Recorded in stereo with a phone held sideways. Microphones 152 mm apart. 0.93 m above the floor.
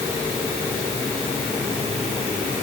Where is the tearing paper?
No tearing paper in this recording.